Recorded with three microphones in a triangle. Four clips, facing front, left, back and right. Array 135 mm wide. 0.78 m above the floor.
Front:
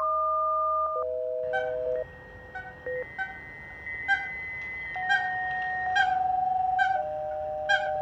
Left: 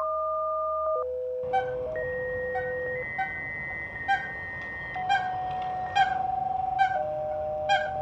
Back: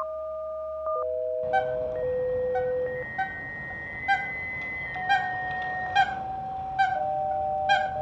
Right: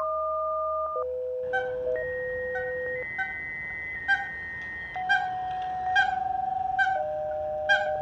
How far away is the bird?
About 4.5 m.